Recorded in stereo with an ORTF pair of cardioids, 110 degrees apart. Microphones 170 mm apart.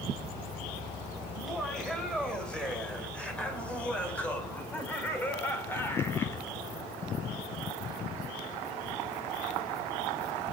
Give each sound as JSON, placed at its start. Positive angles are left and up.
{"t": 1.3, "sound": "laughter", "azimuth_deg": 5, "distance_m": 8.5}